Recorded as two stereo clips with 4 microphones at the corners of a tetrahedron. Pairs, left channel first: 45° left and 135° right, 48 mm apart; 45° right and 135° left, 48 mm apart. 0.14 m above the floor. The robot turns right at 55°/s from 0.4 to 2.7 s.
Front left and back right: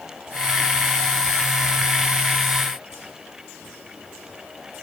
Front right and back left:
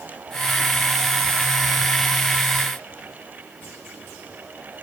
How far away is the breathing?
I don't hear breathing.